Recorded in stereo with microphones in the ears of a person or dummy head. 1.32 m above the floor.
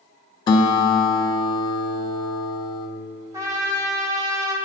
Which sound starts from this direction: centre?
A trumpet, at 3.3 s.